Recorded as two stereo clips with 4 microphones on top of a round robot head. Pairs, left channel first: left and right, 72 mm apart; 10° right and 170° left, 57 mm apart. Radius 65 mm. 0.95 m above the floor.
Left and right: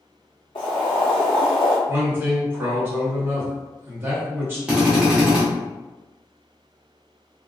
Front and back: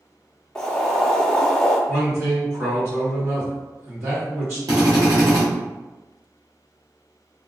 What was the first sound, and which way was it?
Boiling, 65° left.